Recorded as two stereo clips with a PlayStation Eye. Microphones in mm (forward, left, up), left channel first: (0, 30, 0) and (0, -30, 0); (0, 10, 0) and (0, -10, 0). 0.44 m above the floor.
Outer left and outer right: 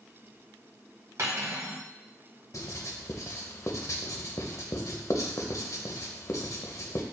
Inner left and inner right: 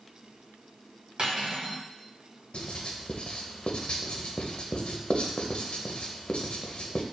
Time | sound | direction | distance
1.2 | cutlery clinking | 50° right (ahead or behind) | 1.5 m
2.5 | writing | 65° left (ahead or behind) | 0.6 m